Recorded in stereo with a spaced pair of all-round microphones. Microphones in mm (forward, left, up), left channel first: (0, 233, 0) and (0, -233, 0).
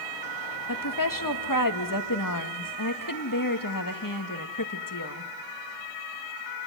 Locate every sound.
0.7 s a woman speaking: 45° left (ahead or behind), 1.8 m